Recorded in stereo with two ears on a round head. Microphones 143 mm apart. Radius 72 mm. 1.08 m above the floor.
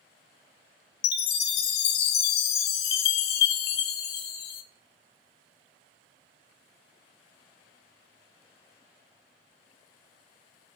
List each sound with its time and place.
1.0 s a chime: 70° left (ahead or behind), 0.6 m